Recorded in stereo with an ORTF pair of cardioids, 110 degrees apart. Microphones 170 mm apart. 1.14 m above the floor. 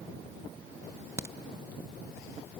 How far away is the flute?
I don't hear a flute.